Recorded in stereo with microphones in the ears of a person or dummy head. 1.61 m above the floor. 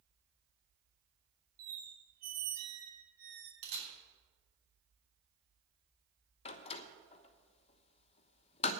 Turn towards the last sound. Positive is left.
turn(degrees=35)  # may be behind; listen again after turning